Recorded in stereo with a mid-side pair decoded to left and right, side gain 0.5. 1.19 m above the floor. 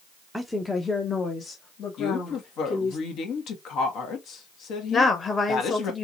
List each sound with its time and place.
0.3 s a woman speaking: straight ahead, 0.6 m; by 3.0 s 65° left, 1.9 m
2.0 s a woman speaking: 65° left, 1.3 m
4.9 s a woman speaking: 35° left, 1.6 m